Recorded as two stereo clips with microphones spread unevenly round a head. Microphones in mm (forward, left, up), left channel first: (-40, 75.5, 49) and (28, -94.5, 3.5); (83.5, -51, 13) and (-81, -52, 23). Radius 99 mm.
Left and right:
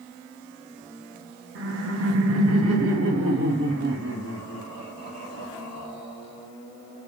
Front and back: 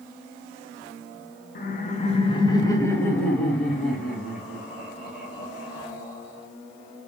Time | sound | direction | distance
1.6 | laughter | 35° right | 0.8 m